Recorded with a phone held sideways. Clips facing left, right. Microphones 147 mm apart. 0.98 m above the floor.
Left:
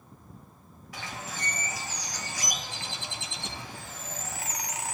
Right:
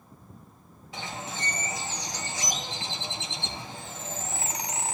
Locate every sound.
0.9 s a bird: 25° right (ahead or behind), 1.1 m